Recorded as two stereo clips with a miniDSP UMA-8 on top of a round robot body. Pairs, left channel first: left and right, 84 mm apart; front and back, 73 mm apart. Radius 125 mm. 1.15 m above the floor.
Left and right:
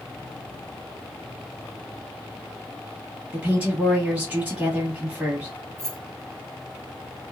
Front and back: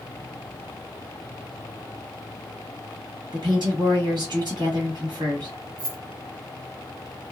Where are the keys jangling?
175° left, 0.9 m.